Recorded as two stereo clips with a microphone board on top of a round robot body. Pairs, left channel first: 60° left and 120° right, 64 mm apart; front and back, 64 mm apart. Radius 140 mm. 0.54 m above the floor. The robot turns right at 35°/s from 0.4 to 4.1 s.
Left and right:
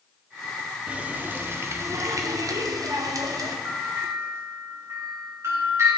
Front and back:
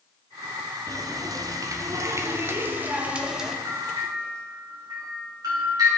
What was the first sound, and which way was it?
A running tap, 170° left.